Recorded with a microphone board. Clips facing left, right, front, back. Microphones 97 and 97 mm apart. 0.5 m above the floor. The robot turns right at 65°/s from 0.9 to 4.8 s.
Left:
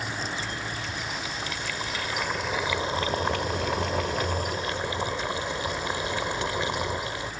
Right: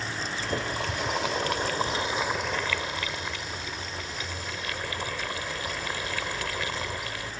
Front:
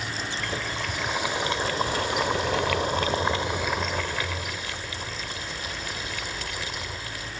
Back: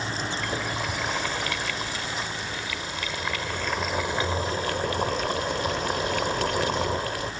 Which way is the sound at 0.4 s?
100° right.